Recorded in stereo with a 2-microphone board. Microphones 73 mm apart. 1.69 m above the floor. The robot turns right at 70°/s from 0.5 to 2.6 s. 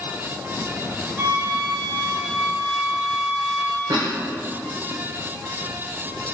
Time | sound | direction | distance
1.2 | a flute | 155° right | 2.5 m
3.9 | a cough | 70° right (ahead or behind) | 0.9 m